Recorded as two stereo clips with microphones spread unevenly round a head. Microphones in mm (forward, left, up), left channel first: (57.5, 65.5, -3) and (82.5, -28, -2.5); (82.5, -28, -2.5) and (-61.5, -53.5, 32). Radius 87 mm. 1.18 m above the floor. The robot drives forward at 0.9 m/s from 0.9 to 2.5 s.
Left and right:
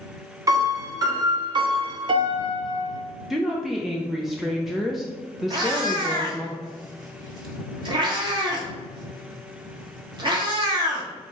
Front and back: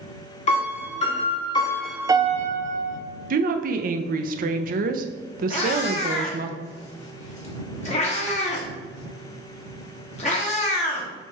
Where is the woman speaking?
160° right, 0.5 m.